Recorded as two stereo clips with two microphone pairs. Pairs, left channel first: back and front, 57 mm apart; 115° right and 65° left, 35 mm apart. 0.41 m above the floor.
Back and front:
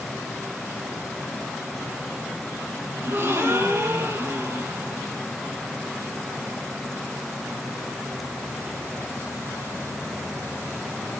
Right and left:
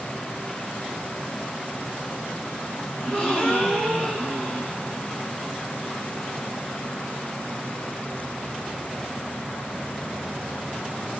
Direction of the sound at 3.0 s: 50° right.